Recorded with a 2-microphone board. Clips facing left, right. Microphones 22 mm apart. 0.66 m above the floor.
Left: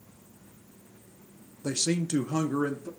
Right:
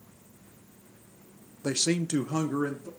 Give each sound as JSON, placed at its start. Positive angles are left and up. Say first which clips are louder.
{"t": 1.6, "sound": "a man speaking", "louder": "right 1 dB", "side_deg": -20, "distance_m": 0.6}